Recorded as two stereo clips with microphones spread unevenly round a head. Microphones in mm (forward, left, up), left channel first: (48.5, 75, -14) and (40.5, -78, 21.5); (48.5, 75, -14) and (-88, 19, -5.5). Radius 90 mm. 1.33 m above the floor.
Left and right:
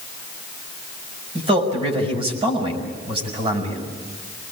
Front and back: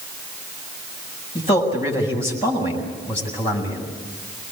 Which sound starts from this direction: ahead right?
A man speaking, at 1.4 s.